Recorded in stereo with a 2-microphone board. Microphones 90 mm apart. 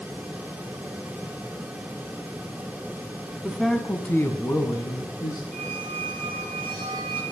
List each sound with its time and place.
3.4 s a man speaking: 5° right (ahead or behind), 1.2 m; by 5.4 s 50° left (ahead or behind), 1.9 m
5.5 s a squeak: 15° left (ahead or behind), 3.5 m